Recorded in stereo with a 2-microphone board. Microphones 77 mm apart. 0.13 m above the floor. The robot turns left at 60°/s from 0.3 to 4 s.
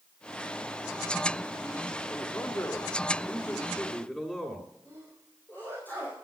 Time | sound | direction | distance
2.1 | a man speaking | 20° left (ahead or behind) | 1.8 m
4.8 | a sneeze | 25° left (ahead or behind) | 5.5 m